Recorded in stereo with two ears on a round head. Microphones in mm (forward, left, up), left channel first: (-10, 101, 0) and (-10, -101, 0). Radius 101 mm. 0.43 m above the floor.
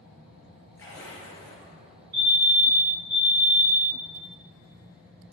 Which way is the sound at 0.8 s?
10° left (ahead or behind).